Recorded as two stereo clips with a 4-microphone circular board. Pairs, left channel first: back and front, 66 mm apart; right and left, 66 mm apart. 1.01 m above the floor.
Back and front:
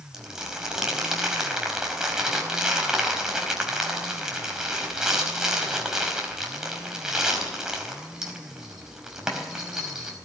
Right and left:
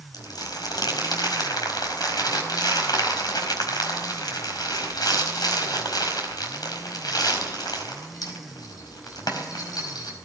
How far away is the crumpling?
About 4.5 m.